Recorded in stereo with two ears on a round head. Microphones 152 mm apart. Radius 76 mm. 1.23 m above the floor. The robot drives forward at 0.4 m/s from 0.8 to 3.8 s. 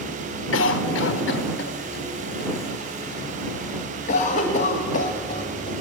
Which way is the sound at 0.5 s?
80° left.